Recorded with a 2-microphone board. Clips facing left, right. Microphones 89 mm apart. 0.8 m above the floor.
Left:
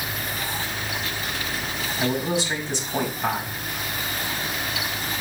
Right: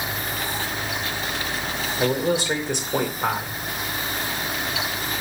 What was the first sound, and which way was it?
A man speaking, 60° right (ahead or behind).